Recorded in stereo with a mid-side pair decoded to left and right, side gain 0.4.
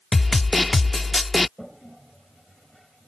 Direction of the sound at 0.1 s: 20° left.